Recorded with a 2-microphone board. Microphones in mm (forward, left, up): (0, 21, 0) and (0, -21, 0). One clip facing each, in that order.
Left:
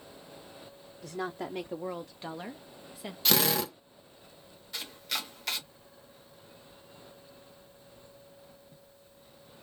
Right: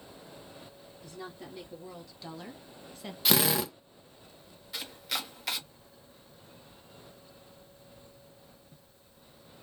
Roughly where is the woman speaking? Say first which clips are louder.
Left 9 dB; left.